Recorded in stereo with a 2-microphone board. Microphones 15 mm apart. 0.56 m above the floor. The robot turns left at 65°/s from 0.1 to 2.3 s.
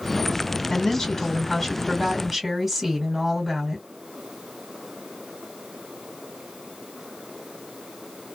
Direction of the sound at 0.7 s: 85° left.